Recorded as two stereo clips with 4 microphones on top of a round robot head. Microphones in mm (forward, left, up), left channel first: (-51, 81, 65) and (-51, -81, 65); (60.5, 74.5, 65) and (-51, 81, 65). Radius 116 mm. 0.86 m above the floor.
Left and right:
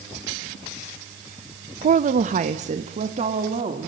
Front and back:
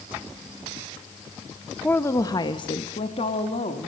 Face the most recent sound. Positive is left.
turn(degrees=-35)